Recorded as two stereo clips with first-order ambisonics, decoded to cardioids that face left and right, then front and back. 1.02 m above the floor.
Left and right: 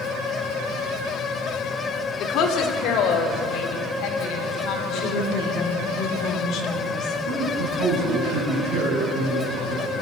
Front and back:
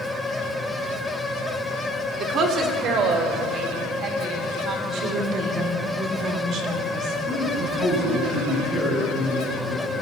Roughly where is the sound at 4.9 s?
Behind left.